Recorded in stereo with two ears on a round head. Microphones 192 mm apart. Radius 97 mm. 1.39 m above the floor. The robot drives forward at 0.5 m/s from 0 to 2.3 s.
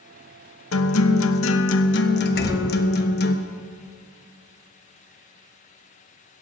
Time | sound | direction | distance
0.7 | a guitar | 65° left (ahead or behind) | 0.8 m
2.4 | a gunshot | 65° left (ahead or behind) | 6 m